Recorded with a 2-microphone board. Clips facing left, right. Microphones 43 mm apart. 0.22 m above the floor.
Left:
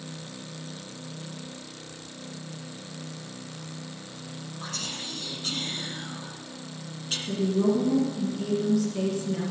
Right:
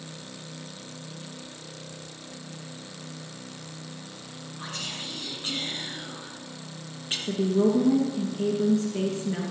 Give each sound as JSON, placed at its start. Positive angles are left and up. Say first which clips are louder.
{"t": 4.6, "sound": "whispering", "louder": "right 1 dB", "side_deg": -35, "distance_m": 3.5}
{"t": 7.3, "sound": "a woman speaking", "louder": "right 1 dB", "side_deg": -65, "distance_m": 2.5}